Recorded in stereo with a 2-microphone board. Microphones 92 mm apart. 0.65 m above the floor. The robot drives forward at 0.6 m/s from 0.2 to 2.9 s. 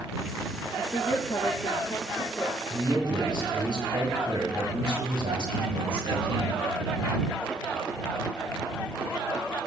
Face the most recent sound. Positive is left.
turn(degrees=-75)  # may be behind; listen again after turning